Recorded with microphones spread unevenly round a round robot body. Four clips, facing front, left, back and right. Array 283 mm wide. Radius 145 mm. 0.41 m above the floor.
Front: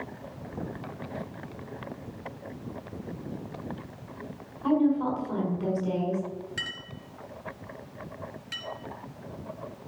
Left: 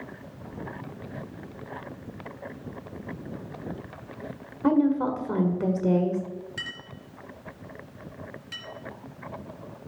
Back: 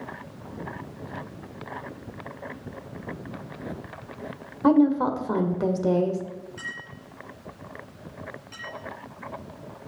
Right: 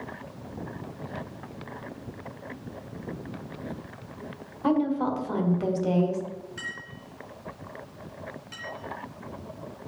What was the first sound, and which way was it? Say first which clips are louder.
A woman speaking: left 2 dB, back 5 dB; 150° left.